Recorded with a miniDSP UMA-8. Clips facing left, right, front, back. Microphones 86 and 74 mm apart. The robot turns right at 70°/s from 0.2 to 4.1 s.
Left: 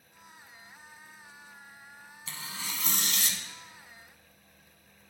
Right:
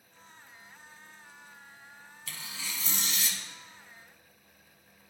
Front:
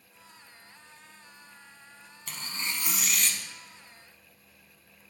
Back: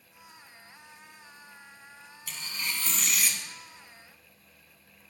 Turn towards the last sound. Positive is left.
turn(degrees=155)